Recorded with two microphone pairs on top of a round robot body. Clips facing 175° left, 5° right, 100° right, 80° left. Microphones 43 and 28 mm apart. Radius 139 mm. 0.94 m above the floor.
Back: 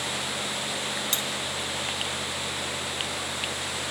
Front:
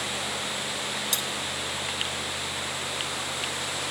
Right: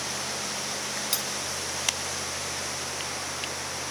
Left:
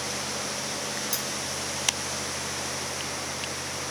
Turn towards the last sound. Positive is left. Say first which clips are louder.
# back 1 dB, right 1 dB
turn(degrees=-130)